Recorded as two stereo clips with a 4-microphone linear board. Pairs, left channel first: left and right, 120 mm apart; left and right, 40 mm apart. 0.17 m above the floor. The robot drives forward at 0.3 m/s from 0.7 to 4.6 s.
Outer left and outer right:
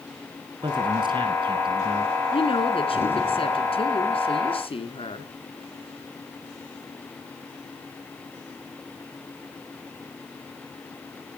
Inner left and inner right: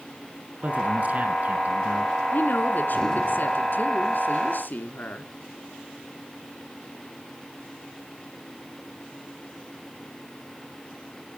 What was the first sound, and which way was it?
A man speaking, 40° right (ahead or behind).